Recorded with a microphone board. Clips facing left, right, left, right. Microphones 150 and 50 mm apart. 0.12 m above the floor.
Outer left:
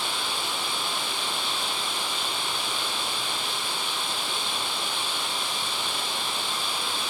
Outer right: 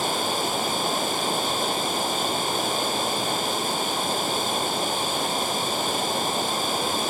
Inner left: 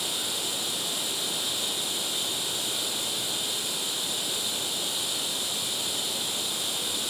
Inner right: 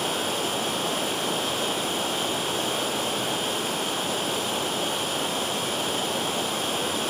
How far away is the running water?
About 1.0 m.